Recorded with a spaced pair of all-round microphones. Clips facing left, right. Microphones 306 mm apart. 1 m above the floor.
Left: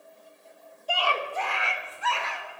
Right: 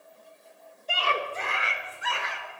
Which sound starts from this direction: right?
A scream, at 0.9 s.